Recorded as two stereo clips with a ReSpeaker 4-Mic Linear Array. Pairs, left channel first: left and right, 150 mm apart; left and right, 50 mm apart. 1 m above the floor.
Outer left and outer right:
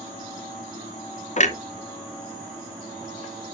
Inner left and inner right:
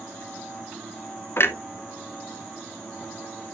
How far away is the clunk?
About 0.9 m.